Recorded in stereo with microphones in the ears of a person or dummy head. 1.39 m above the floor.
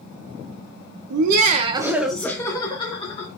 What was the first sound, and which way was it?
Laughter, 65° right (ahead or behind).